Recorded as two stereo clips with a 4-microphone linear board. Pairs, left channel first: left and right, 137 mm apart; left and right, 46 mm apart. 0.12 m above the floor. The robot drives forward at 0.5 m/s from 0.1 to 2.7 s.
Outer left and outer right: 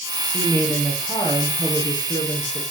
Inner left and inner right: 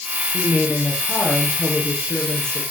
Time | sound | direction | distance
0.3 | a woman speaking | 10° left (ahead or behind) | 2.5 m